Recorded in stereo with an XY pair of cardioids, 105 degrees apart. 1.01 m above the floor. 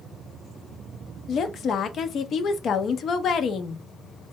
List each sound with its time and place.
1.3 s a woman speaking: 55° left, 0.5 m